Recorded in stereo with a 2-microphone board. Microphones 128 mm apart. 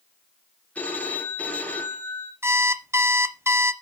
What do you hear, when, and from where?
0.8 s a phone ringing: 10° left (ahead or behind), 2.5 m
2.4 s an alarm clock: 20° right (ahead or behind), 0.9 m